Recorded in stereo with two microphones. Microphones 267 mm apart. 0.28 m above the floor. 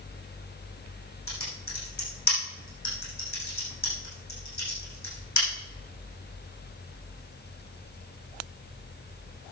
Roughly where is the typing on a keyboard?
Left.